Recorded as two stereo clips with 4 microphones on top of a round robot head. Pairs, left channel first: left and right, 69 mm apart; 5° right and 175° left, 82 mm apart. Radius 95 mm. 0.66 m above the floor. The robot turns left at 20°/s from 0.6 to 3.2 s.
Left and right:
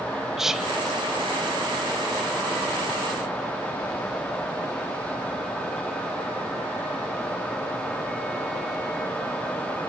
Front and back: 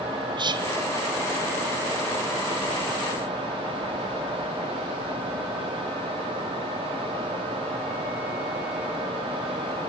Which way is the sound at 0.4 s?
170° right.